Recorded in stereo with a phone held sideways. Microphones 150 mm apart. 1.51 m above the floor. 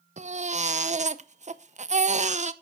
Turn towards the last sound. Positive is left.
turn(degrees=-50)  # may be behind; listen again after turning